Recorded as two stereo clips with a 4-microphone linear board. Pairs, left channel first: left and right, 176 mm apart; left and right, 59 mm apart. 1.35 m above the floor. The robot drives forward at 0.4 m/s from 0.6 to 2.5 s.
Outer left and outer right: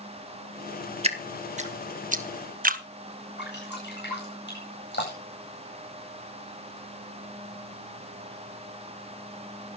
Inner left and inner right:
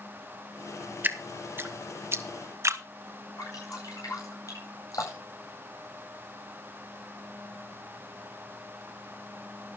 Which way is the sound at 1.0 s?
35° right (ahead or behind).